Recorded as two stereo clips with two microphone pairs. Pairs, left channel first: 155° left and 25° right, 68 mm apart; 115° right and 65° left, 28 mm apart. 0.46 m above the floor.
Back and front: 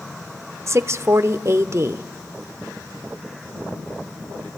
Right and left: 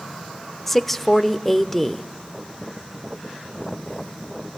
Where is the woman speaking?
35° right, 1.0 m.